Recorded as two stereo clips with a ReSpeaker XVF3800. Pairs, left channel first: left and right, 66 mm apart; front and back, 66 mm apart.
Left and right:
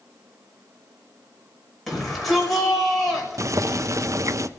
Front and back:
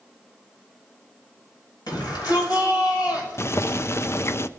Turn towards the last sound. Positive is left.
turn(degrees=-50)